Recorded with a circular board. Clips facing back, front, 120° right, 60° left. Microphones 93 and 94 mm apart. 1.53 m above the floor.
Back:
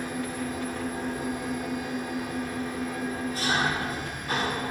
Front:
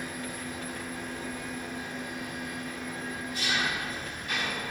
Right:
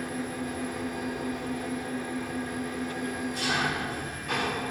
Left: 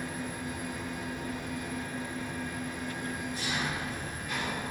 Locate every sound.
0.0 s an engine running: 130° right, 2.5 m